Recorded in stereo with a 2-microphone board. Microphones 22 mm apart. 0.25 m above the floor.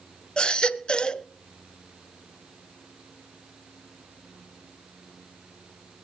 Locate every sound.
0.4 s a baby crying: 50° left (ahead or behind), 0.6 m